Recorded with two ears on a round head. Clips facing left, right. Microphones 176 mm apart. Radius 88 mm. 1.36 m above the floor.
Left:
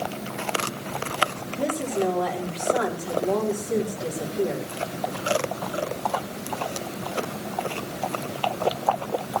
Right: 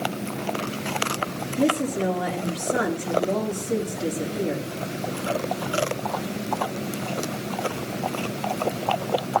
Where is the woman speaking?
30° right (ahead or behind), 3.5 m.